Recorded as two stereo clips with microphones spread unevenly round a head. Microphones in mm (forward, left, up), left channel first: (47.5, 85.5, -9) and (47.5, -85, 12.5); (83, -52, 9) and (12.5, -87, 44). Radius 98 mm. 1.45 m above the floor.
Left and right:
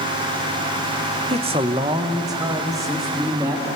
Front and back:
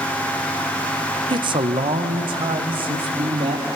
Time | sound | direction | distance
1.3 | a man speaking | 150° right | 0.8 m